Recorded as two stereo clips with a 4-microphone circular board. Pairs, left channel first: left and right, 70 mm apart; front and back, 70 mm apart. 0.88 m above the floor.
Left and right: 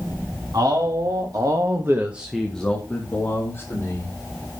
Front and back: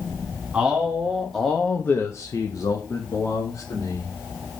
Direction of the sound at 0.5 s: 105° right.